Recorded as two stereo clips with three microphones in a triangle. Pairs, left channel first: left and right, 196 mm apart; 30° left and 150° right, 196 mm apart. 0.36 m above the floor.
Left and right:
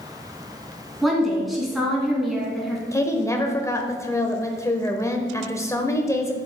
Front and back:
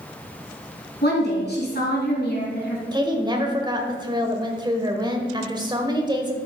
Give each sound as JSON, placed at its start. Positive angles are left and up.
{"t": 1.0, "sound": "a woman speaking", "azimuth_deg": 0, "distance_m": 3.0}
{"t": 2.9, "sound": "a woman speaking", "azimuth_deg": 155, "distance_m": 1.3}